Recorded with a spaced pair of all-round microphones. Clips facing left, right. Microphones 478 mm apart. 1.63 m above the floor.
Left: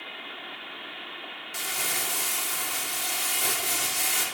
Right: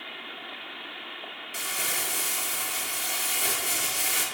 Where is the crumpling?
15° left (ahead or behind), 0.5 m.